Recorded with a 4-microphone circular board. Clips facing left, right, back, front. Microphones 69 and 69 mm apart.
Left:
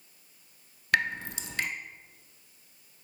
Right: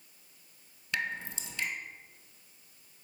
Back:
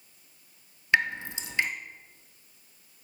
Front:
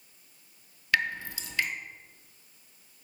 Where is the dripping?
115° left, 0.5 m.